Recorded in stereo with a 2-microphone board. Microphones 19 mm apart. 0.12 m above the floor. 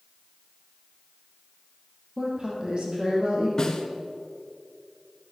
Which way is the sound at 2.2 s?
45° right (ahead or behind).